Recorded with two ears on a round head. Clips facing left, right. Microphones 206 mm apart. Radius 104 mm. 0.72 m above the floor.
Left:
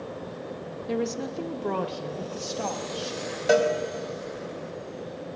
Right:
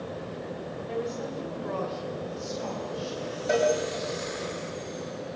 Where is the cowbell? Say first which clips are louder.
Left 3 dB; 70° left (ahead or behind), 3.5 m.